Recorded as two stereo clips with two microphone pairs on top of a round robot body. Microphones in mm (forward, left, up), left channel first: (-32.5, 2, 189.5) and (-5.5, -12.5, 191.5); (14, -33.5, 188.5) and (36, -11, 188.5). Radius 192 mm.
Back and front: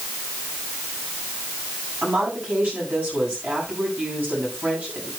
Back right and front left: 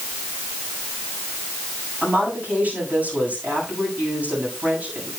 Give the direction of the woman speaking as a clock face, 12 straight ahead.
12 o'clock.